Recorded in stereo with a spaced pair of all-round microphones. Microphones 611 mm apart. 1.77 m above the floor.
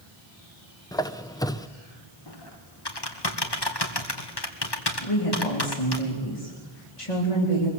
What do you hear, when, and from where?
0.9 s a squeak: 5° left (ahead or behind), 0.8 m
2.3 s typing on a keyboard: 40° left (ahead or behind), 2 m
5.0 s a woman speaking: 60° left (ahead or behind), 3.5 m